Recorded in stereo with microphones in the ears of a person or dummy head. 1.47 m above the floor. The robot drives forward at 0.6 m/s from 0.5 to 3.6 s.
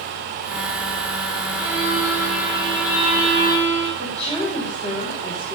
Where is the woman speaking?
15° right (ahead or behind), 5 m.